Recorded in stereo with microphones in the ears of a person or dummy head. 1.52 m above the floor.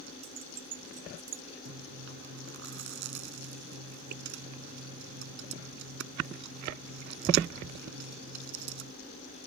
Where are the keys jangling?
30° right (ahead or behind); by 1.4 s 20° right (ahead or behind).